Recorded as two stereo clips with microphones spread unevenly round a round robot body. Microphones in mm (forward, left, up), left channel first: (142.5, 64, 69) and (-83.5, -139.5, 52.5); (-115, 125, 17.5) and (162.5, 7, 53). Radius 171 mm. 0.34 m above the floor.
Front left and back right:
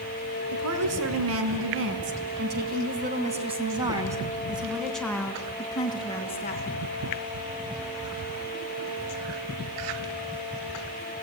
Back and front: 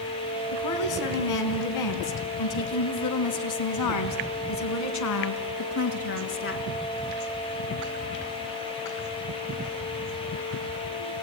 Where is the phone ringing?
I don't hear a phone ringing.